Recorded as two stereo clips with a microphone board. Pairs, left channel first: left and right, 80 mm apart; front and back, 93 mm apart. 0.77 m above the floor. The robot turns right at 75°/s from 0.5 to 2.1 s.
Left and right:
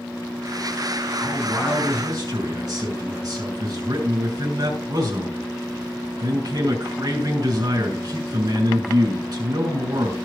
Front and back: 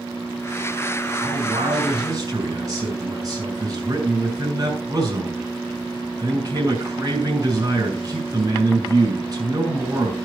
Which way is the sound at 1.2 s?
165° left.